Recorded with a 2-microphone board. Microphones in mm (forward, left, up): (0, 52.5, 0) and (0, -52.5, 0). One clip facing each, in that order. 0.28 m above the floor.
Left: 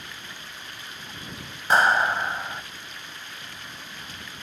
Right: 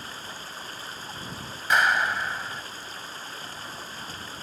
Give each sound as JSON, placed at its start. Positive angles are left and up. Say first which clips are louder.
{"t": 0.0, "sound": "running water", "louder": "right 2 dB", "side_deg": -35}
{"t": 1.7, "sound": "a clap", "louder": "left 3 dB", "side_deg": 35}